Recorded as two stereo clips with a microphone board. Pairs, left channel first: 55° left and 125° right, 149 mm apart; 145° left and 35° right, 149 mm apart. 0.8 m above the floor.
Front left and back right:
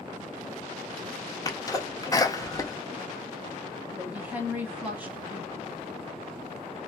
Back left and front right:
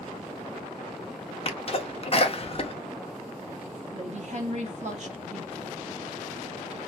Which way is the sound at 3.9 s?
50° right.